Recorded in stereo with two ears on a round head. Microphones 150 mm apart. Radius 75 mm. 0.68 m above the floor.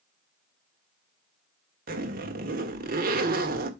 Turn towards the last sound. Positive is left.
turn(degrees=-55)  # may be behind; listen again after turning